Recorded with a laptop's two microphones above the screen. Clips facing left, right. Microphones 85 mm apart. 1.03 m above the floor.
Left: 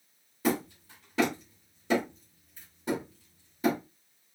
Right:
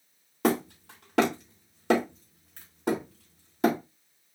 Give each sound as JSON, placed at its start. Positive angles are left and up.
{"t": 0.4, "sound": "hammering", "side_deg": -75, "distance_m": 2.0}